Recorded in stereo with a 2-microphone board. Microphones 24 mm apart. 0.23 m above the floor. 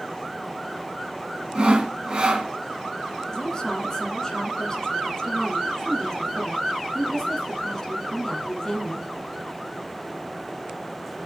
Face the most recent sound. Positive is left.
turn(degrees=20)  # may be behind; listen again after turning